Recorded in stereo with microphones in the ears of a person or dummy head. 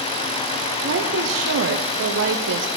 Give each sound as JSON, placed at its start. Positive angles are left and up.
{"t": 0.8, "sound": "a woman speaking", "side_deg": -70, "distance_m": 0.6}